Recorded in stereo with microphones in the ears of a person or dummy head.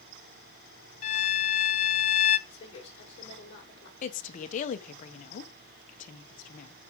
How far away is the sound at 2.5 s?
About 5 m.